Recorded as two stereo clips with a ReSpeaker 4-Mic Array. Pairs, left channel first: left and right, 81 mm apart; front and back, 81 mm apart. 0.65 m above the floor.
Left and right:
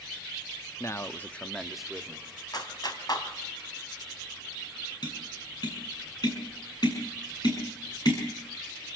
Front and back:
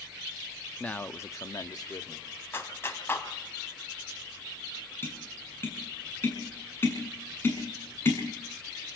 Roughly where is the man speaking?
Left.